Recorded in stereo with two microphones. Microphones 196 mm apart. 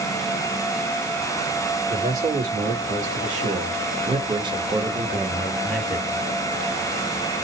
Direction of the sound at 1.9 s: 45° right (ahead or behind).